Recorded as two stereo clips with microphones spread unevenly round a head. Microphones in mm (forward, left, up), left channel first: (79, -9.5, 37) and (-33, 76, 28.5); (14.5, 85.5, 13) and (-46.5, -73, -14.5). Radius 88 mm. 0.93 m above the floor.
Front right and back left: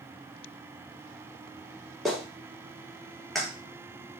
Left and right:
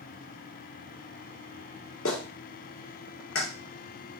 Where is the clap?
50° left, 1.5 m.